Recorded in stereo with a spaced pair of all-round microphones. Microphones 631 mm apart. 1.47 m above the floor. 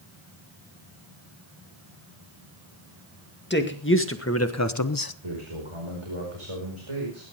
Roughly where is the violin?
No violin in this recording.